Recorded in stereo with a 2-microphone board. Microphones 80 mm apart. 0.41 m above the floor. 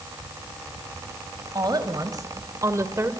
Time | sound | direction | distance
1.6 | a woman speaking | 55° right (ahead or behind) | 2.5 m